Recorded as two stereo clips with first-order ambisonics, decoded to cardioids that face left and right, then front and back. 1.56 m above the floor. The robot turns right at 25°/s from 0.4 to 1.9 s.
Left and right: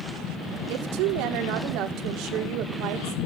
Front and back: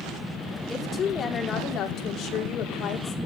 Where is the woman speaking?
80° right, 3.5 m; by 3.2 s 50° right, 3.5 m.